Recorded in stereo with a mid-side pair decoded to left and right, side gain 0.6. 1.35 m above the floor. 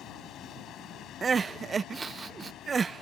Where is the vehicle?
55° left.